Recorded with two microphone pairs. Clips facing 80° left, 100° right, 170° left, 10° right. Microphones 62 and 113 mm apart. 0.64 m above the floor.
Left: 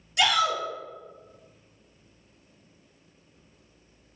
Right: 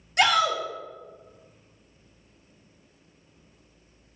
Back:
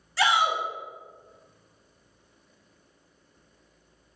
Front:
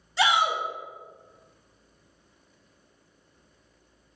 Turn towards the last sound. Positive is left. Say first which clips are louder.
# right 2 dB, even
turn(degrees=-75)